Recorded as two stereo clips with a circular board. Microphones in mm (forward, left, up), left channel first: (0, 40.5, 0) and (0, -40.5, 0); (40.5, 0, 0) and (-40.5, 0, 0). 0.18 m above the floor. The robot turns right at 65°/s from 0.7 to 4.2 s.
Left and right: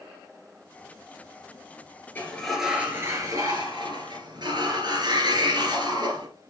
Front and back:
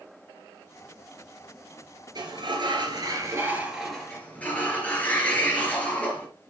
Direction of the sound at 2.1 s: 155° left.